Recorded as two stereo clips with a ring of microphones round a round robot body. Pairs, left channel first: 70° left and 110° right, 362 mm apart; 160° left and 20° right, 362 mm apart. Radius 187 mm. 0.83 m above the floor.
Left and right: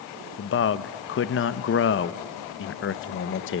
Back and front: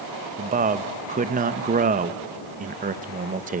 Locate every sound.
0.4 s a man speaking: 35° left, 0.7 m